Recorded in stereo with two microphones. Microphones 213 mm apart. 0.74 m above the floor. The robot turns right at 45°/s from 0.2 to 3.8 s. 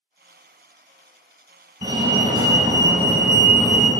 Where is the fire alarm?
20° right (ahead or behind), 1.4 m; by 3.9 s 5° right (ahead or behind), 1.4 m.